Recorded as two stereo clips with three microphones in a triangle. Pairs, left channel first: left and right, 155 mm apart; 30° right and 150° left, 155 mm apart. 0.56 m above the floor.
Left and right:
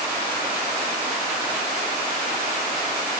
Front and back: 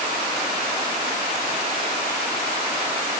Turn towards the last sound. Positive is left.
No sound to turn to.